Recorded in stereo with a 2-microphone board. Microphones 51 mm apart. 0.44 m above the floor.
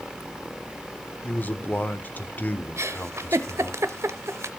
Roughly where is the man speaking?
Left.